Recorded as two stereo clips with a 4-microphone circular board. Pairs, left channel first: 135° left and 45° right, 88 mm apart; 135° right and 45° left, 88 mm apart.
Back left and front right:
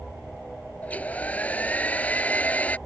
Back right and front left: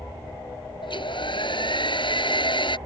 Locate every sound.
0.8 s a hair dryer: 150° right